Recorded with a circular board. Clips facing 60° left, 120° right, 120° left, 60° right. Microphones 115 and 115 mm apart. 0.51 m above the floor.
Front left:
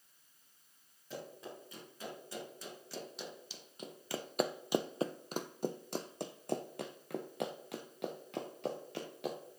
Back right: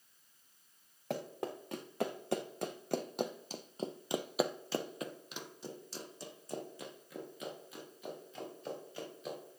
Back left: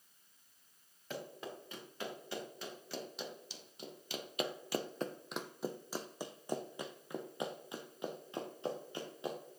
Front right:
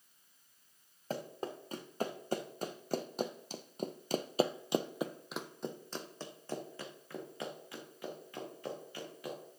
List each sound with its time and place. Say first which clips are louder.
1.1 s running footsteps: back right 7 dB, front right 5 dB; 110° right, 2.5 m; by 9.4 s 55° left, 3.5 m